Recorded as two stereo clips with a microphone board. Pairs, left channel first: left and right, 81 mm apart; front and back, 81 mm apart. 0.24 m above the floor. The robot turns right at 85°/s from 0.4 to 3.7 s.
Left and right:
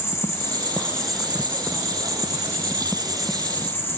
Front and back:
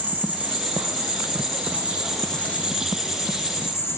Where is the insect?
120° left, 2.5 m; by 4.0 s 40° left, 2.5 m.